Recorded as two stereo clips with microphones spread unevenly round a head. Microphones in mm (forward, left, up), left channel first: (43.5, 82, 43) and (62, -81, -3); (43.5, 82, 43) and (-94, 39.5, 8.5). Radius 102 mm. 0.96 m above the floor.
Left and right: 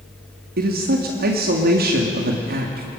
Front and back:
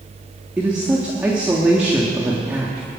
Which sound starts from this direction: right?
A man speaking, at 0.6 s.